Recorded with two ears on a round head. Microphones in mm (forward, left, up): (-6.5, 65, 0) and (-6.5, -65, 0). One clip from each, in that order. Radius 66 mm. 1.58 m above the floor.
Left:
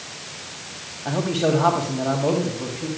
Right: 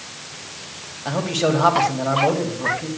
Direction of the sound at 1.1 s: 35° right (ahead or behind).